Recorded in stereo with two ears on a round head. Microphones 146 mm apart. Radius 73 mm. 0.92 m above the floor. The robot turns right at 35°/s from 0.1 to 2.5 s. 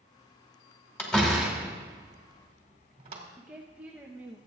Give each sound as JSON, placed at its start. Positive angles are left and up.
{"t": 1.0, "sound": "a door slam", "side_deg": 10, "distance_m": 2.5}
{"t": 3.4, "sound": "a woman speaking", "side_deg": -10, "distance_m": 0.9}